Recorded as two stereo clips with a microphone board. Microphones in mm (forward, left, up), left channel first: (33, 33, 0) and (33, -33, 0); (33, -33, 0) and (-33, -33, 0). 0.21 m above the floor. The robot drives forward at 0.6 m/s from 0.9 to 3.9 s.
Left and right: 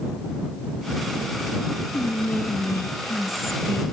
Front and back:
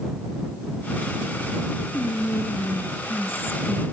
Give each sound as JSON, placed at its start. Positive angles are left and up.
{"t": 1.9, "sound": "whispering", "azimuth_deg": 35, "distance_m": 3.0}